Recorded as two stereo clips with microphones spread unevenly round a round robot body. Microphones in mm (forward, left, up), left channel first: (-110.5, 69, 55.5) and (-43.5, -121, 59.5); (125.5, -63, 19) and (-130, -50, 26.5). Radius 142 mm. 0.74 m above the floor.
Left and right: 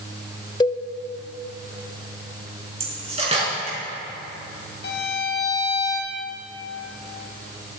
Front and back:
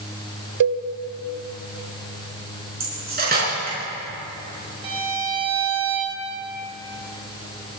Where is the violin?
110° left, 1.6 m.